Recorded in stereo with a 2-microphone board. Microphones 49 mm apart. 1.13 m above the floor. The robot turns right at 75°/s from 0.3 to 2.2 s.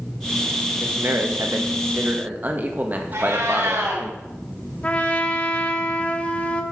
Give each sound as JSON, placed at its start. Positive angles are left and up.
{"t": 0.8, "sound": "a man speaking", "azimuth_deg": -145, "distance_m": 1.6}
{"t": 3.1, "sound": "a cat meowing", "side_deg": -75, "distance_m": 3.0}
{"t": 4.8, "sound": "a trumpet", "side_deg": 30, "distance_m": 1.0}